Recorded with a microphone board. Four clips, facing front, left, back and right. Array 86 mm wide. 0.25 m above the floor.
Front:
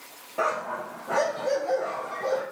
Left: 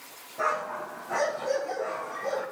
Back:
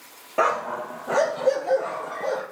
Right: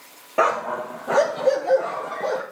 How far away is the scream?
I don't hear a scream.